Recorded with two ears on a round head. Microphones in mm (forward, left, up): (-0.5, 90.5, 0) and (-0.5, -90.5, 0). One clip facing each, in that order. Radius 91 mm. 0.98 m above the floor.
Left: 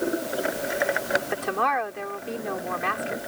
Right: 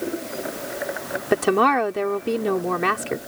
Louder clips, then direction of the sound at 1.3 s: Right 8 dB; 65° right (ahead or behind).